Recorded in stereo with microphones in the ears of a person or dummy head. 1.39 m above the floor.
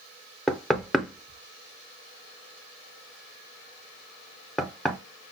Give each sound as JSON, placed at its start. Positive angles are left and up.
{"t": 0.5, "sound": "knocking", "side_deg": -5, "distance_m": 0.5}